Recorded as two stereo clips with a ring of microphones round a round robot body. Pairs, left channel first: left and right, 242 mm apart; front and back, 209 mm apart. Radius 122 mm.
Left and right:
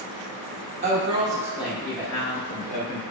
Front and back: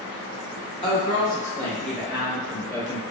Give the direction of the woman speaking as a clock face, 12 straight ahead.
2 o'clock.